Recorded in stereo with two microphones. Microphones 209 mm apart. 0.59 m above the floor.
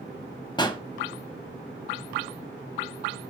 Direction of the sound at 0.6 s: 20° left (ahead or behind).